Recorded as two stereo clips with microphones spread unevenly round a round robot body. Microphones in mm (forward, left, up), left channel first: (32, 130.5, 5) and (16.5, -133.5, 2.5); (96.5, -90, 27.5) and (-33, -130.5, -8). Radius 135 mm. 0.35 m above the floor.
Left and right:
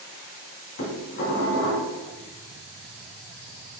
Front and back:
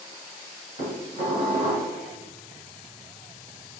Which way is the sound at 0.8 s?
135° left.